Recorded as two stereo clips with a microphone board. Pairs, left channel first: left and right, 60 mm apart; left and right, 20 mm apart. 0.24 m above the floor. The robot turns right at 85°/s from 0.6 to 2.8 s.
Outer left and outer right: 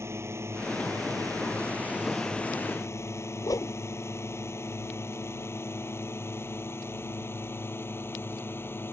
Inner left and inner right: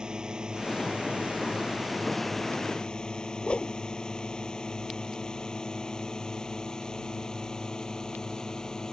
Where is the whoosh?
80° left.